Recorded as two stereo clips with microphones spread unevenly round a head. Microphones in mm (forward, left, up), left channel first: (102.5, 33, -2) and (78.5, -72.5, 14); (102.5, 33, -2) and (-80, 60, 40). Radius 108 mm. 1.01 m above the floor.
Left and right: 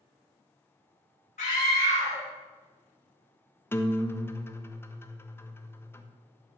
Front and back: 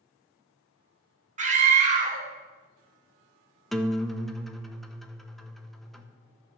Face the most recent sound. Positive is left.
turn(degrees=55)